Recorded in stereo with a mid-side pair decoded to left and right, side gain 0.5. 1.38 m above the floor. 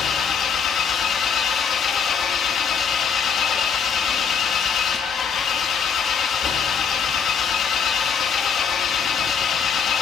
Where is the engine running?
55° left, 1.9 m.